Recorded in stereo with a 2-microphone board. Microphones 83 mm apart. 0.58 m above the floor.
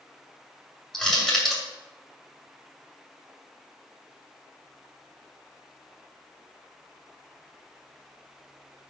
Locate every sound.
0.9 s crushing: 5° left (ahead or behind), 2.5 m